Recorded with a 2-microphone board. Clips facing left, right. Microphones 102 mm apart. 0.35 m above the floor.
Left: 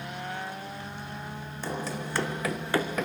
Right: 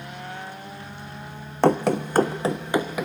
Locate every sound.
1.6 s running footsteps: 75° right (ahead or behind), 1.0 m; by 3.0 s 5° right (ahead or behind), 1.6 m